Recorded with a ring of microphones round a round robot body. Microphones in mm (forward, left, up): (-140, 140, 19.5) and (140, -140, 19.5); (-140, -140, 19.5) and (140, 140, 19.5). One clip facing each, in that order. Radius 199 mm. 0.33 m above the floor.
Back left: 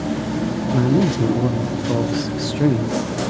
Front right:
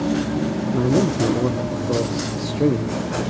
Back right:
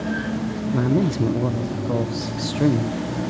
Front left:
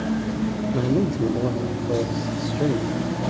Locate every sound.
0.7 s a man speaking: 170° right, 0.9 m